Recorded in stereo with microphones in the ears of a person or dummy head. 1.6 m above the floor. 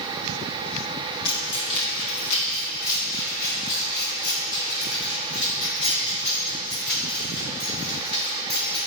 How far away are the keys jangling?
About 1.3 m.